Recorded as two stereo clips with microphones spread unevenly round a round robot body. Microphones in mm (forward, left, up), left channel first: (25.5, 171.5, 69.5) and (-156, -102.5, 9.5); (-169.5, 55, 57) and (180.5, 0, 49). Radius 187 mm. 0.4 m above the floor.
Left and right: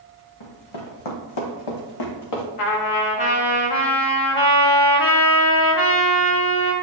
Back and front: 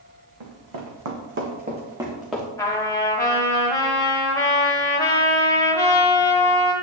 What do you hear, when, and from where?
0.4 s running footsteps: 20° left, 1.8 m; by 2.5 s 85° left, 2 m
2.6 s a trumpet: 90° left, 1.6 m